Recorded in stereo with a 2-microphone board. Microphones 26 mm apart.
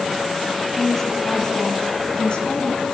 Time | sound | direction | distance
0.7 | a woman speaking | 5° left (ahead or behind) | 2.5 m